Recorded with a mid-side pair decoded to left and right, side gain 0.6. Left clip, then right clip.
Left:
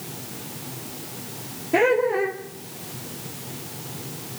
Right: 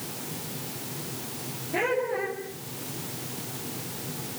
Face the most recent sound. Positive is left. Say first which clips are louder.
# left 8 dB
turn(degrees=50)